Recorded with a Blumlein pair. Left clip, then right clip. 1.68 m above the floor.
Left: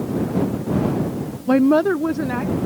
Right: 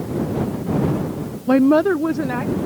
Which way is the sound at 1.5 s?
Straight ahead.